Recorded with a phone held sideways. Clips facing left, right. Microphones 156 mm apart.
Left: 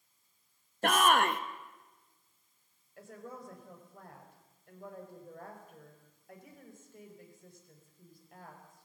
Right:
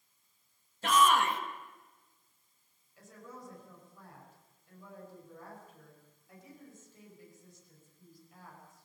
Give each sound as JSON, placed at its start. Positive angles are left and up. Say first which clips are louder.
{"t": 0.8, "sound": "a shout", "louder": "even", "side_deg": 55, "distance_m": 1.2}
{"t": 3.0, "sound": "a woman speaking", "louder": "left 4 dB", "side_deg": 55, "distance_m": 5.0}